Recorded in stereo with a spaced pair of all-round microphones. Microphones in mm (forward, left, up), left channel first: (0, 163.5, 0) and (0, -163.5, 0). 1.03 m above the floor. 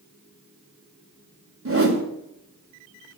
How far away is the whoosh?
About 2.5 m.